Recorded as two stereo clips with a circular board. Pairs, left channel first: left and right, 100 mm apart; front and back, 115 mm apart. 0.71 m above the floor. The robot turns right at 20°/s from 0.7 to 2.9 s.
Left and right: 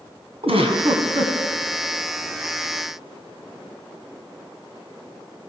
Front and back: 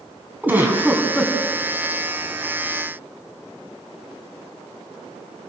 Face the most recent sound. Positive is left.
turn(degrees=-65)